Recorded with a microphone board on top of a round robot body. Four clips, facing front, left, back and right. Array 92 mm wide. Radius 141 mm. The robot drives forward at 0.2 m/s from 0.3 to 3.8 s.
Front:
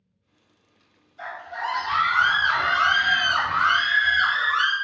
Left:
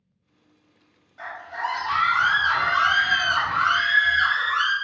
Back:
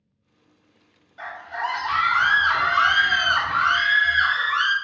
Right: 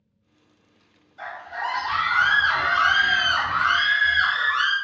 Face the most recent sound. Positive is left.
turn(degrees=165)